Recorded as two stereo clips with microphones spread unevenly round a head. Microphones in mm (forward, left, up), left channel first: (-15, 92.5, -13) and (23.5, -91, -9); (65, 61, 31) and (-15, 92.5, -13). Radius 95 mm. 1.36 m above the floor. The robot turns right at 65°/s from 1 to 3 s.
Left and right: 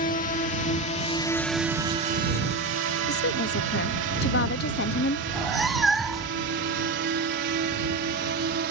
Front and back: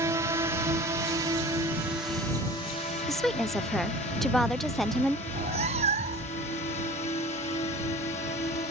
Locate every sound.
0.0 s a drone: 140° left; by 8.7 s 45° right
3.1 s a woman speaking: 85° left
5.3 s a cat meowing: 170° right